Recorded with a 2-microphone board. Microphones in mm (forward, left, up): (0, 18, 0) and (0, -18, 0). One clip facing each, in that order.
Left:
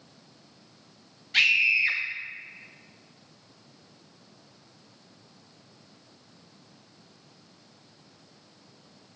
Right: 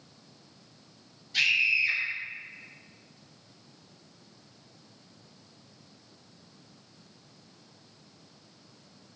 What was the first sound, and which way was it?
A scream, 60° left (ahead or behind).